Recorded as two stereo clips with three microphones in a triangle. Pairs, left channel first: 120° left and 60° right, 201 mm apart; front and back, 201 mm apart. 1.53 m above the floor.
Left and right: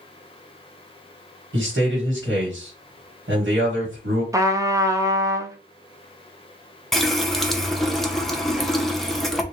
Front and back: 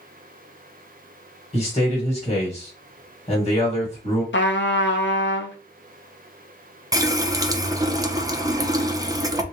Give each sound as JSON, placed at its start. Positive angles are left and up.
{"t": 1.5, "sound": "a man speaking", "azimuth_deg": -60, "distance_m": 1.6}
{"t": 4.3, "sound": "a trumpet", "azimuth_deg": 15, "distance_m": 0.6}
{"t": 6.9, "sound": "a running tap", "azimuth_deg": -155, "distance_m": 0.5}